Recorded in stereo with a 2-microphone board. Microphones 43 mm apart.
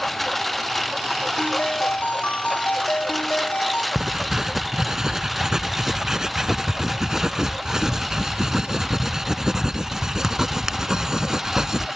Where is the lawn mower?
5° left (ahead or behind); by 12.0 s 5° right (ahead or behind).